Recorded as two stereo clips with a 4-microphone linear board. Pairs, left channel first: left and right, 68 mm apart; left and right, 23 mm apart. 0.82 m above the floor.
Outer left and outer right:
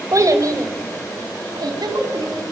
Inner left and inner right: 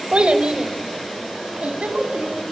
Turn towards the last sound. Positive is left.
turn(degrees=-70)  # may be behind; listen again after turning